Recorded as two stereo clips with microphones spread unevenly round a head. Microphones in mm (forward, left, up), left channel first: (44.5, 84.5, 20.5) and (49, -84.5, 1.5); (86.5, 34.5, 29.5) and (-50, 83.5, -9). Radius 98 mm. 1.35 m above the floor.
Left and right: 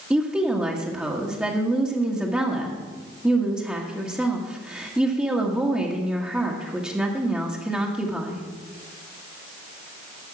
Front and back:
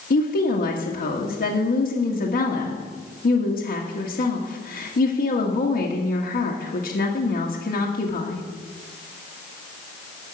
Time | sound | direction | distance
0.1 | a woman speaking | 5° right | 1.6 m